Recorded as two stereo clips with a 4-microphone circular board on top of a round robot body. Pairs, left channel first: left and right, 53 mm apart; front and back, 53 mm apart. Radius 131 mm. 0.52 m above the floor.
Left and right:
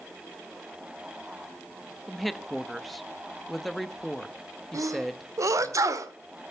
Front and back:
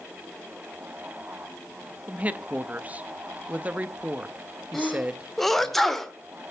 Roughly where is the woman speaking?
Behind.